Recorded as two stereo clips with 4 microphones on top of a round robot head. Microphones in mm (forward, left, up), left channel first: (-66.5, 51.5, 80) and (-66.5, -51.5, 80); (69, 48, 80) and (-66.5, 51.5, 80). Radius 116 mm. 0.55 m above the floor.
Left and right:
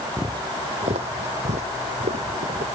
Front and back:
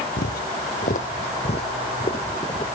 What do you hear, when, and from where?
0.2 s footsteps: 15° right; by 2.6 s 65° right